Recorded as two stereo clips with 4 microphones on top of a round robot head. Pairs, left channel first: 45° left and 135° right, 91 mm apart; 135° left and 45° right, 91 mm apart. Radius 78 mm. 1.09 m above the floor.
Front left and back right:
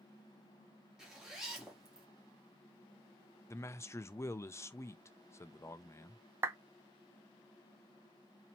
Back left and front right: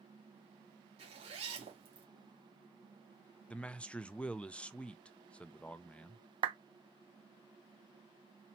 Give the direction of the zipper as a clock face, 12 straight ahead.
2 o'clock.